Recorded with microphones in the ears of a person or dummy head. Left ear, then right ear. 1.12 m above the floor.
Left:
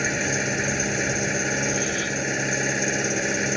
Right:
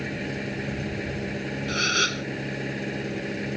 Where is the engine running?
50° left (ahead or behind).